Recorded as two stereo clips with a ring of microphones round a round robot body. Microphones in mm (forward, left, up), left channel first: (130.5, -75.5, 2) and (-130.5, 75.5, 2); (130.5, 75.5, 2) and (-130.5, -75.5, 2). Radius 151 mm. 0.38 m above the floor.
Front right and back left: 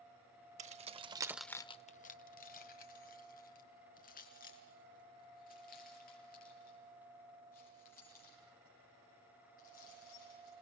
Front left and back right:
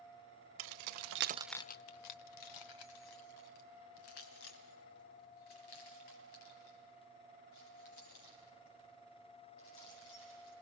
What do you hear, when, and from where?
0.6 s keys jangling: 145° right, 1.1 m; by 10.5 s 35° left, 10 m